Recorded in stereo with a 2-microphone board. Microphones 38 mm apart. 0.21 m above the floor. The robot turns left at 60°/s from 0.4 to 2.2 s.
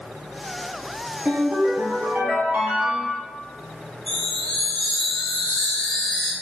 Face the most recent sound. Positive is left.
turn(degrees=15)  # may be behind; listen again after turning